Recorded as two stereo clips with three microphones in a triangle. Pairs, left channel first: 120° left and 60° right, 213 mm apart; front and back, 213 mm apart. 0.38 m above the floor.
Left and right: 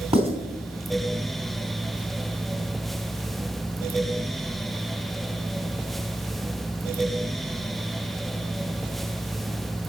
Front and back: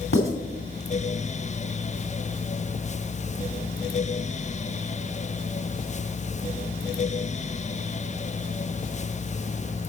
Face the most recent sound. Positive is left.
turn(degrees=0)